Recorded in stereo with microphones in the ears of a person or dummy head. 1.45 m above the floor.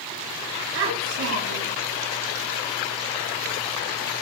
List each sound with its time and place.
0.8 s a child speaking: 85° right, 7 m